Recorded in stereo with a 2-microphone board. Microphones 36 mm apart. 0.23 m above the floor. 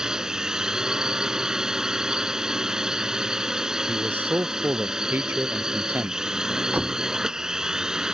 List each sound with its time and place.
0.0 s a drone: 20° right (ahead or behind)
3.9 s a man speaking: 75° right (ahead or behind)
6.7 s a door slam: 45° right (ahead or behind)